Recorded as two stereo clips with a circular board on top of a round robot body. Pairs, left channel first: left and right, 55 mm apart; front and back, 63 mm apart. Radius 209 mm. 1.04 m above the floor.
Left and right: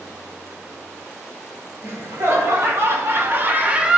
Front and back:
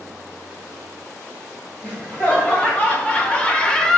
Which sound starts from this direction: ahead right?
Laughter, at 1.8 s.